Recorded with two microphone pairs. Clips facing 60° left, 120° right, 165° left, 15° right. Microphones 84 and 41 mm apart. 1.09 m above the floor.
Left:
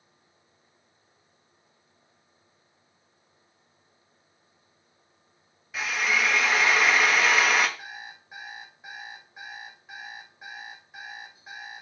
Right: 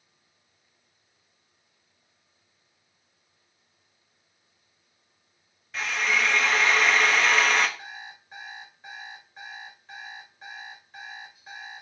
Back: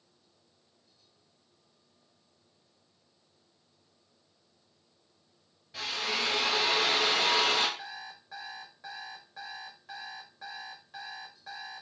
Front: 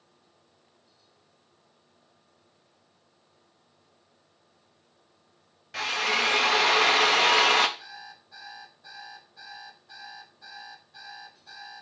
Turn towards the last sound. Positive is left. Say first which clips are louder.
# even, back 2 dB
turn(degrees=140)